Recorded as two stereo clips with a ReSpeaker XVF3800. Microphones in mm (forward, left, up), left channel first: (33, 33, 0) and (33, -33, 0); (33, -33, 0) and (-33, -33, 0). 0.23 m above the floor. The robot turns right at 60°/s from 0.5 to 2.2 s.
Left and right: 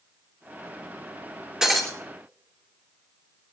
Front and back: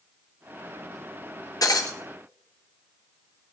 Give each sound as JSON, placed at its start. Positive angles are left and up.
{"t": 1.6, "sound": "breaking glass", "azimuth_deg": -10, "distance_m": 3.0}